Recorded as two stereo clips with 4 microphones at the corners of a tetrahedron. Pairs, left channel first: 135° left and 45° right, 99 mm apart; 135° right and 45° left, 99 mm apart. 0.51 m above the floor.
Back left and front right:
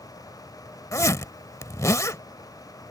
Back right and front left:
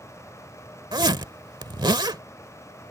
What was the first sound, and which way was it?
A zipper, 80° left.